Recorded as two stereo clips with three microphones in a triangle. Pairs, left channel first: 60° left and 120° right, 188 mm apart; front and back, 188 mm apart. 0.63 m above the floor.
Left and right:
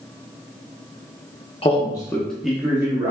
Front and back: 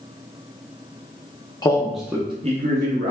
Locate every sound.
1.6 s a man speaking: 45° left, 0.7 m; by 3.1 s 170° left, 1.1 m